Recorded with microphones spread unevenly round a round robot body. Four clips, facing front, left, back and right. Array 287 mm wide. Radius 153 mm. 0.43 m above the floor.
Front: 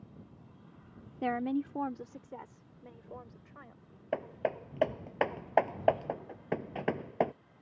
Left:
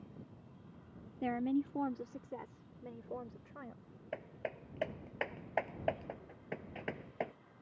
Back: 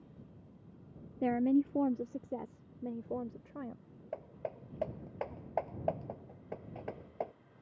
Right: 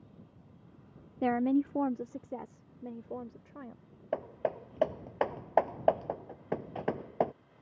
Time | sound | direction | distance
1.2 | a woman speaking | 90° right | ?
4.1 | hammering | 30° right | ?